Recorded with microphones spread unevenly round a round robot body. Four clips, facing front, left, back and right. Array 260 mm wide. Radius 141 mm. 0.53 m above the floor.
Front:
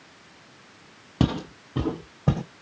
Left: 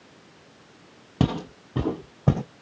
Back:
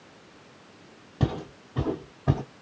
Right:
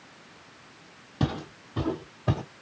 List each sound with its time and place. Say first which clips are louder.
1.2 s footsteps: left 5 dB, front 5 dB; 25° left, 0.9 m; by 2.4 s 80° left, 1.2 m